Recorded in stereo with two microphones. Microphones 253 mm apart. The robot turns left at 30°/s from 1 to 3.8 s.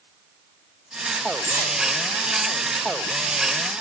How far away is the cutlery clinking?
About 3.5 m.